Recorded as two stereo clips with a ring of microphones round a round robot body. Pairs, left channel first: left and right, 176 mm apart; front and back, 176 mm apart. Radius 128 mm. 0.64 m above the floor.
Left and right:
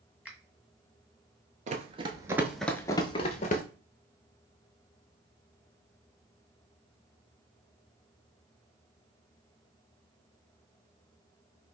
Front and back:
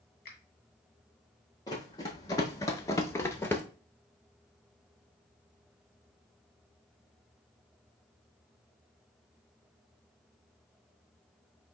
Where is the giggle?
No giggle in this recording.